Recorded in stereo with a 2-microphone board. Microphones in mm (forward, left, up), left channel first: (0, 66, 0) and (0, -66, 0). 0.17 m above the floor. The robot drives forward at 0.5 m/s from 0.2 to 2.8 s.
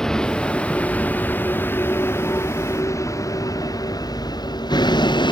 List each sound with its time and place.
0.0 s a vehicle: 5° left (ahead or behind); by 5.3 s 35° left (ahead or behind)